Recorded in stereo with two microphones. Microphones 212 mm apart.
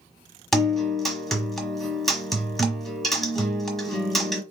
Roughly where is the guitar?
Centre.